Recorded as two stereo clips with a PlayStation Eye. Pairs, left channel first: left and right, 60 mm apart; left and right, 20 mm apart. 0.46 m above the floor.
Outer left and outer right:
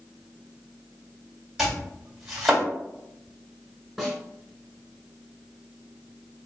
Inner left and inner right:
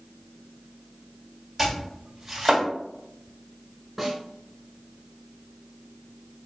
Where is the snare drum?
10° right (ahead or behind), 1.3 m.